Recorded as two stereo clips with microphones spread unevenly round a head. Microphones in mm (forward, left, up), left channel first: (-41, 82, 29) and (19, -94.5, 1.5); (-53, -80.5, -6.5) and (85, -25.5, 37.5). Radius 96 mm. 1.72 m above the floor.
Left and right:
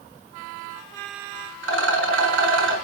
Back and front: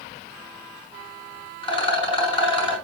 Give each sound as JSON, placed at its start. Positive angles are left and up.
{"t": 1.6, "sound": "a rattle", "azimuth_deg": -100, "distance_m": 6.0}